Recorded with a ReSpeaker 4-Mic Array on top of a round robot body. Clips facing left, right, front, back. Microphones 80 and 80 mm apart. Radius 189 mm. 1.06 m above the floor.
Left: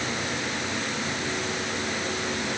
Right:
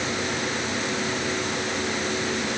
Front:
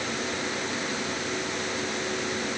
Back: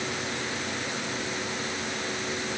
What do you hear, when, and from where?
Only background noise.